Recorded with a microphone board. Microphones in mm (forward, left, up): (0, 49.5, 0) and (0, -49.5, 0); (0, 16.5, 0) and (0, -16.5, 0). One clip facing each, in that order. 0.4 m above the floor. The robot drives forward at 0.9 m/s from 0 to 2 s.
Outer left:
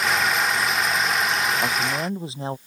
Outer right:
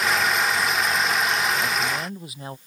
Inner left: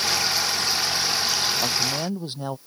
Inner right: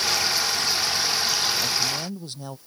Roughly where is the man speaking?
Left.